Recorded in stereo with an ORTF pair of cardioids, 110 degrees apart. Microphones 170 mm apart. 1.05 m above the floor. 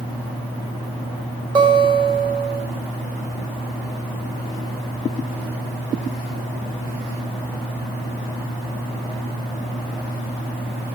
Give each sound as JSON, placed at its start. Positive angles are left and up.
{"t": 1.6, "sound": "a guitar", "azimuth_deg": -25, "distance_m": 4.0}